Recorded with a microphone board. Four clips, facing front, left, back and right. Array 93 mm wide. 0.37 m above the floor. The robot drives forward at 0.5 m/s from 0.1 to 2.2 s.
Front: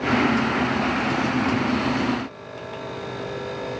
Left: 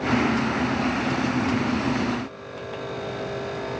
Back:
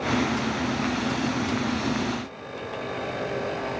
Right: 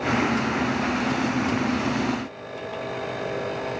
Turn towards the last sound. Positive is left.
No sound to turn to.